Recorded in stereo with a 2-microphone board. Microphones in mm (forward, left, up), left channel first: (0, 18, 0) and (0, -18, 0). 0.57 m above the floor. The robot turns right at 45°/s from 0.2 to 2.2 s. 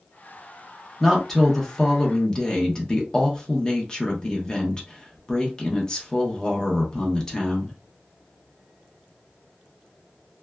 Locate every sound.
1.0 s a woman speaking: 5° left (ahead or behind), 0.7 m; by 7.8 s 20° left (ahead or behind), 0.7 m